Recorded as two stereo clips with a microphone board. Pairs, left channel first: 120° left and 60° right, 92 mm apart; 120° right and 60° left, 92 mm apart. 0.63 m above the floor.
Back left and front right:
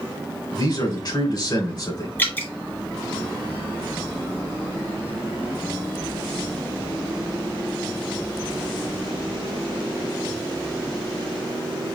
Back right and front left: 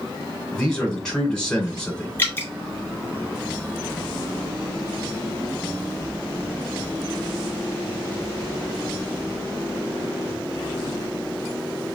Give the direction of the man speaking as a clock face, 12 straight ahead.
7 o'clock.